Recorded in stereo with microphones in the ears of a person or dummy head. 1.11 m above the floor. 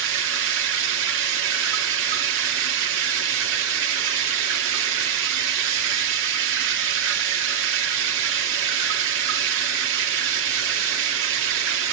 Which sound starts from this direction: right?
Running water, at 0.0 s.